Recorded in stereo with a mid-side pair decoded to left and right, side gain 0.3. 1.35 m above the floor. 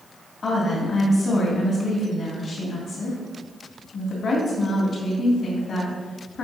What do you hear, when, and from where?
0.4 s a woman speaking: 65° left, 2.5 m